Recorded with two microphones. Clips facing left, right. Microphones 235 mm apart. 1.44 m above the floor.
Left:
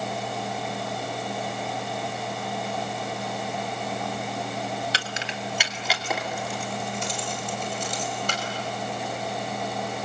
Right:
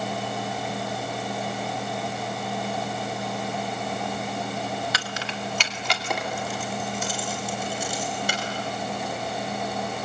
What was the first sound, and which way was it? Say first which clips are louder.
Keys jangling: right 1 dB; 30° left (ahead or behind).